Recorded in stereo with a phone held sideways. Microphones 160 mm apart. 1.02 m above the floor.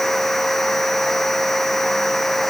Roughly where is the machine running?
Centre.